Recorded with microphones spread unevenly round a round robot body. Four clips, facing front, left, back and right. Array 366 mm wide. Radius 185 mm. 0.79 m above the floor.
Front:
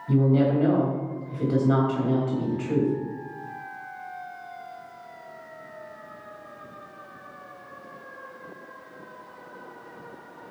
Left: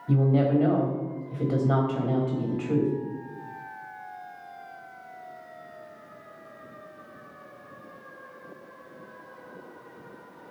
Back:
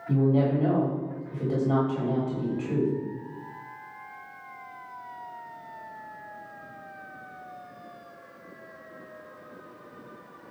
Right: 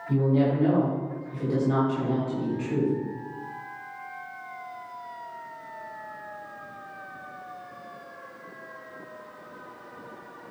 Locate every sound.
0.1 s a woman speaking: 75° left, 3.5 m